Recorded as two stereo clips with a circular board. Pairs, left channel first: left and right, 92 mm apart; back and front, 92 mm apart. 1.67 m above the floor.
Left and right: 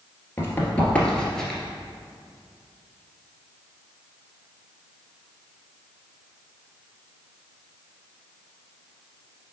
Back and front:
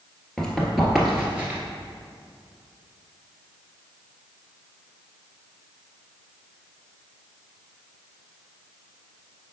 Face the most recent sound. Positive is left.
turn(degrees=0)